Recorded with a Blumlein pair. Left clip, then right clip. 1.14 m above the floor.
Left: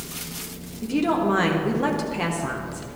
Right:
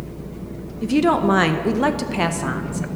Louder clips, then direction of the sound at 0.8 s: Right 5 dB; 70° right.